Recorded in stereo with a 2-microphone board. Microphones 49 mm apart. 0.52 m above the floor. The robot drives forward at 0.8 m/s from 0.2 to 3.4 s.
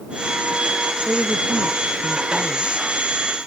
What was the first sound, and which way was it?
A woman speaking, 20° right (ahead or behind).